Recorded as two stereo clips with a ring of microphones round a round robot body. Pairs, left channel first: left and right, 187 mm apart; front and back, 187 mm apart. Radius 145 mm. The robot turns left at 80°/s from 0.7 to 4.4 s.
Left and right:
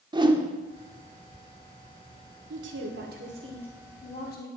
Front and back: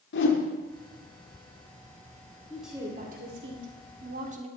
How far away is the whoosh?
About 1.5 m.